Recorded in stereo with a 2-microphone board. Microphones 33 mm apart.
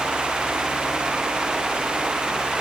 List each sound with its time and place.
Only background noise.